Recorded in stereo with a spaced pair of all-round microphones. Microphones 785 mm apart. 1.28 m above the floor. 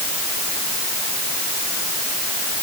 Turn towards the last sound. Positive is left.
No sound to turn to.